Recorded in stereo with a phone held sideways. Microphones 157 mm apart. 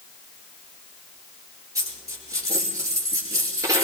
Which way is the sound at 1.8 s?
25° right (ahead or behind).